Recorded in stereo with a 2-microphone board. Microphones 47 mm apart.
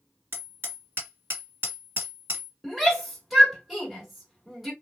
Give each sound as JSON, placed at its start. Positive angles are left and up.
{"t": 0.3, "sound": "hammering", "side_deg": -55, "distance_m": 1.5}
{"t": 2.6, "sound": "a shout", "side_deg": -5, "distance_m": 1.4}